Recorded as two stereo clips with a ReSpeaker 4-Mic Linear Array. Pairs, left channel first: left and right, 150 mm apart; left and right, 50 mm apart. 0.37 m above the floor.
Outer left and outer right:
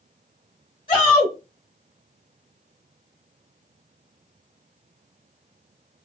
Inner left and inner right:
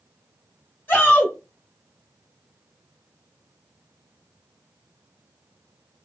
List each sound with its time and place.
0.9 s a shout: 35° left (ahead or behind), 2.5 m